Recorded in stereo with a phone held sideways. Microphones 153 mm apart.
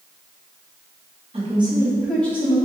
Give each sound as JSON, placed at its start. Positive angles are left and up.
{"t": 1.3, "sound": "a woman speaking", "side_deg": -40, "distance_m": 1.4}